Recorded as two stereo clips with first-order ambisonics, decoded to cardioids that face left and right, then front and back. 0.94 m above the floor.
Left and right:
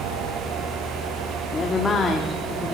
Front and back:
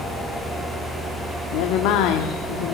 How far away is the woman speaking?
About 2.5 m.